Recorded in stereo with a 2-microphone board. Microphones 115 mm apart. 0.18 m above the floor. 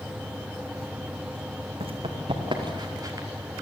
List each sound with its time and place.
1.8 s running footsteps: 55° right (ahead or behind), 4 m; by 3.3 s 25° right (ahead or behind), 3 m